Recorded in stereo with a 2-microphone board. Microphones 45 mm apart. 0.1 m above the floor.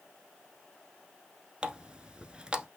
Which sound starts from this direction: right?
A running tap, at 1.6 s.